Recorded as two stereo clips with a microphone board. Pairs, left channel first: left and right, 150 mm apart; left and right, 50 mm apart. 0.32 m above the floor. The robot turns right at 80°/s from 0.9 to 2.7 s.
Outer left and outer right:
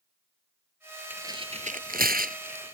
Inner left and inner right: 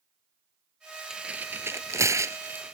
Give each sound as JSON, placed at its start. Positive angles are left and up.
{"t": 1.1, "sound": "tearing paper", "side_deg": -10}